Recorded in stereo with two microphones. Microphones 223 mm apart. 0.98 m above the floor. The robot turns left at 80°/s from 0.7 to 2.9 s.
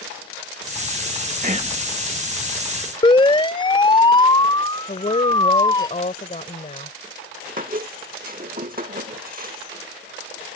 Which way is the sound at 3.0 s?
25° left (ahead or behind).